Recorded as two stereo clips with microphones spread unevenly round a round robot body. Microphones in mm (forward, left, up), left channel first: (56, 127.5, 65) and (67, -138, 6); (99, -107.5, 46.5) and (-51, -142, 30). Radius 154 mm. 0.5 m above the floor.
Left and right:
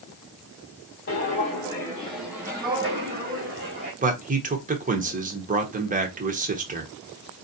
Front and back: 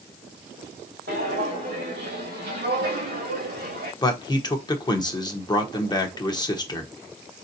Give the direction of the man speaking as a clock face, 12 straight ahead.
2 o'clock.